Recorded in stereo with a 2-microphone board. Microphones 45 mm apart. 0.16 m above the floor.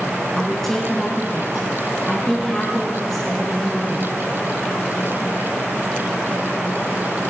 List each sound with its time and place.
0.3 s a woman speaking: 10° left (ahead or behind), 2.0 m